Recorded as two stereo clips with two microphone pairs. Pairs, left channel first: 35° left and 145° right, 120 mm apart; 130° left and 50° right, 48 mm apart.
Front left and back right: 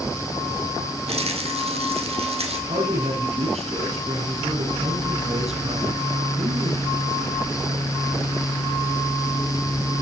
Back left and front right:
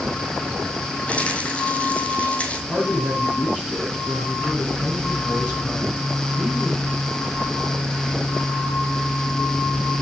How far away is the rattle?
About 2.5 m.